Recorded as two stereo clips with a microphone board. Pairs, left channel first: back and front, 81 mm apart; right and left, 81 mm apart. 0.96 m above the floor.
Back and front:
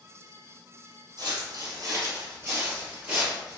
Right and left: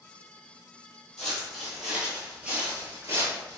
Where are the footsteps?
5° right, 1.5 m; by 3.6 s 85° left, 1.1 m.